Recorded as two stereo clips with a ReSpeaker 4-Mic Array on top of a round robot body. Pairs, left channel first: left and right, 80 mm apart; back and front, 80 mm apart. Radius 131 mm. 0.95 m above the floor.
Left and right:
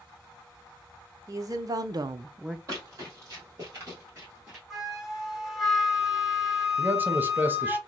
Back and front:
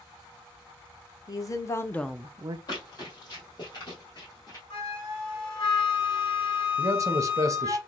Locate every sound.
1.3 s a woman speaking: 135° right, 1.2 m; by 2.6 s 5° right, 0.6 m
2.7 s running footsteps: 140° right, 1.8 m; by 4.6 s 160° right, 0.9 m
4.7 s a flute: 175° right, 0.7 m
6.8 s a man speaking: 30° right, 0.8 m